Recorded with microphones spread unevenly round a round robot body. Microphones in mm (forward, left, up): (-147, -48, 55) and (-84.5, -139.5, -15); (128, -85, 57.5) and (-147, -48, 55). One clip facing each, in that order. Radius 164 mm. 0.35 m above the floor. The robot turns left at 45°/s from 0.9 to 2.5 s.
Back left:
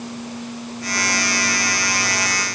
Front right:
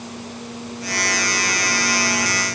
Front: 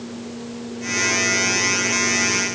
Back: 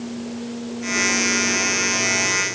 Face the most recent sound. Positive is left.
No sound to turn to.